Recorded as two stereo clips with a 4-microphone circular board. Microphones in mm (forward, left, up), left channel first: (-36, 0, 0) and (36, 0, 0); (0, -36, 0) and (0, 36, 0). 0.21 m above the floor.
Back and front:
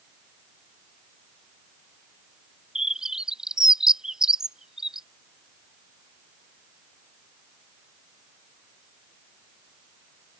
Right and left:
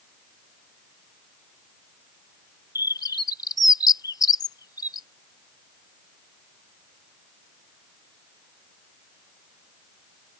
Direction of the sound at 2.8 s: 80° right.